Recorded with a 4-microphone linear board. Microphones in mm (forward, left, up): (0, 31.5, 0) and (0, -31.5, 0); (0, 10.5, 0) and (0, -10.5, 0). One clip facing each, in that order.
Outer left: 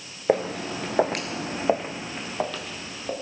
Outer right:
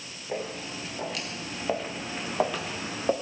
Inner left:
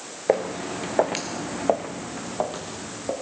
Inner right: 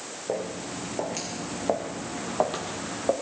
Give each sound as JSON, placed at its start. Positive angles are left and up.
{"t": 0.3, "sound": "footsteps", "side_deg": 80, "distance_m": 2.0}